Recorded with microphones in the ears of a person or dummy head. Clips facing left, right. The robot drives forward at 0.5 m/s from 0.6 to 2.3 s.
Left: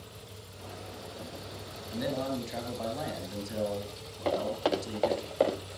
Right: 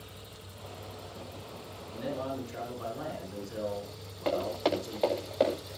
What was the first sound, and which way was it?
A man speaking, 75° left (ahead or behind).